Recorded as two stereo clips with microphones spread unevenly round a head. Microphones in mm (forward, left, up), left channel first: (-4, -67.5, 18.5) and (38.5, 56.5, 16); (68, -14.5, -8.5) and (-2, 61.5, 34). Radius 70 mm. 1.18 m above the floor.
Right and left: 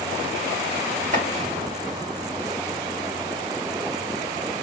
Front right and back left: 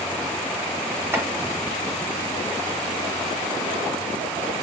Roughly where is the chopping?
Ahead left.